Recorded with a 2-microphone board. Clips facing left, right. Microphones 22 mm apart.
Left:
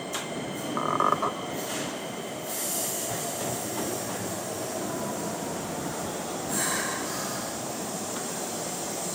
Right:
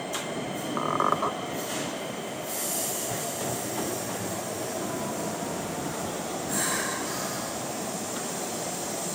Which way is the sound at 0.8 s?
5° left (ahead or behind).